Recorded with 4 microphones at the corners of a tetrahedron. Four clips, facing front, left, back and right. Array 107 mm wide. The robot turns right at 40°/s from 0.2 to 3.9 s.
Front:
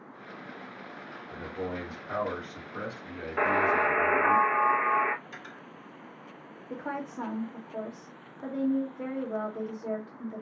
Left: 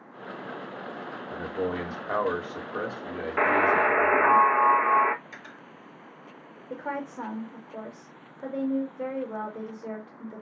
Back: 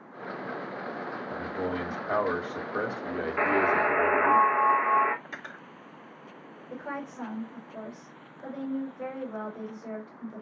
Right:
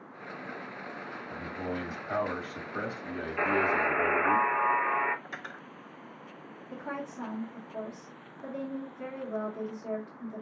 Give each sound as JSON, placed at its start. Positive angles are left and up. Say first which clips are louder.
{"t": 1.3, "sound": "a man speaking", "louder": "left 6 dB, back 2 dB", "azimuth_deg": 95, "distance_m": 1.7}
{"t": 3.4, "sound": "a buzzer", "louder": "left 6 dB, even", "azimuth_deg": 80, "distance_m": 0.7}
{"t": 5.2, "sound": "cutlery clinking", "louder": "right 3 dB, back 3 dB", "azimuth_deg": -145, "distance_m": 1.3}
{"t": 6.7, "sound": "a woman speaking", "louder": "left 5 dB, front 1 dB", "azimuth_deg": 65, "distance_m": 2.0}